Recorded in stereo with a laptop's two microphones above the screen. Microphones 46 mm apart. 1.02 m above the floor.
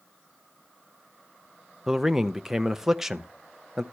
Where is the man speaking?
5° right (ahead or behind), 0.5 m.